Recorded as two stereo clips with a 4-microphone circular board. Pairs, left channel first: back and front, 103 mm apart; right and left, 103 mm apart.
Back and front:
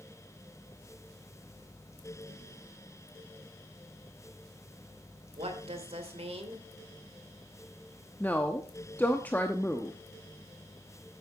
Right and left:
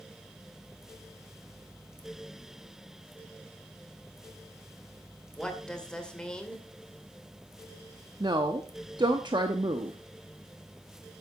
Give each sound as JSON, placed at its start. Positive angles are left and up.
{"t": 5.4, "sound": "a woman speaking", "azimuth_deg": -10, "distance_m": 2.0}
{"t": 8.2, "sound": "a woman speaking", "azimuth_deg": 110, "distance_m": 0.9}